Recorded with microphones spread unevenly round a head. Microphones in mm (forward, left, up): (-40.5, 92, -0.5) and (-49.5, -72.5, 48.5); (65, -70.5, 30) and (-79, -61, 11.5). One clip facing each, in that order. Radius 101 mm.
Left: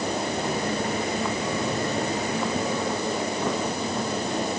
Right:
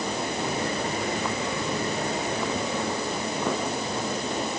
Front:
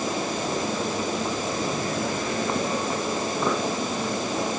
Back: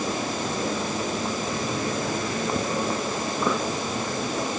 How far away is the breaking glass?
I don't hear breaking glass.